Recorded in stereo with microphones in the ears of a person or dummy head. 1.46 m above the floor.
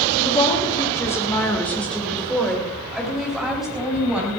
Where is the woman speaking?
30° left (ahead or behind), 1.6 m; by 4.4 s 5° right (ahead or behind), 4.5 m.